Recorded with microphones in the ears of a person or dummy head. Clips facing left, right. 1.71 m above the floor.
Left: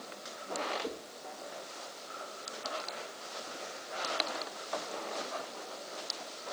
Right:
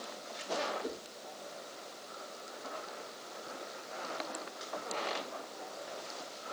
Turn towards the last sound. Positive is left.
turn(degrees=-15)  # may be behind; listen again after turning